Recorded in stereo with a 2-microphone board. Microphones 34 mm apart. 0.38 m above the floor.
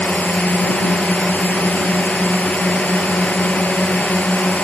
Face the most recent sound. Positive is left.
turn(degrees=60)  # may be behind; listen again after turning